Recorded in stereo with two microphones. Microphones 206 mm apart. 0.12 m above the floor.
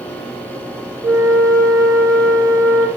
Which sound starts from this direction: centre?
A flute, at 1.0 s.